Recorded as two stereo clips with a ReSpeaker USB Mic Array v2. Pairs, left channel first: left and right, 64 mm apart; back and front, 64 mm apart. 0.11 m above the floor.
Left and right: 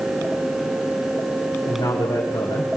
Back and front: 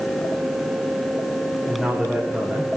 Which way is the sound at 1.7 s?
80° left.